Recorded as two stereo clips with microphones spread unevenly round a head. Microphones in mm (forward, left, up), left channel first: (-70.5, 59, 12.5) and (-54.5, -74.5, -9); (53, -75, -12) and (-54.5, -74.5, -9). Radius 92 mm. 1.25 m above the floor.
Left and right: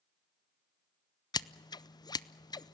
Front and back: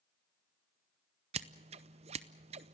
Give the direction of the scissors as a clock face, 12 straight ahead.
7 o'clock.